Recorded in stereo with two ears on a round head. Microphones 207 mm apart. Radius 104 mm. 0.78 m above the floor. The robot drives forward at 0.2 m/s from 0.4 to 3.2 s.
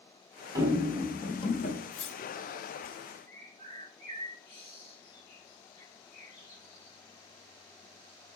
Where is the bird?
45° left (ahead or behind), 2.5 m.